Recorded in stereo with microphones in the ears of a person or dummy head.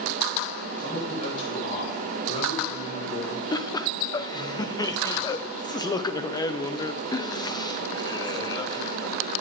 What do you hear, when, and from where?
0.8 s a man speaking: 40° left (ahead or behind), 7 m; by 3.4 s 50° left (ahead or behind), 3.5 m
3.5 s laughter: 20° left (ahead or behind), 0.6 m